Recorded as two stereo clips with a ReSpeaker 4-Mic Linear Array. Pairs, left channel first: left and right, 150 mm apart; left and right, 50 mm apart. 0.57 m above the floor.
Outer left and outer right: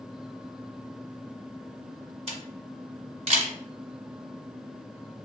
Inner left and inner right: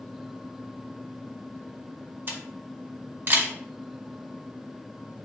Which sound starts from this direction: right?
A camera shutter, at 2.3 s.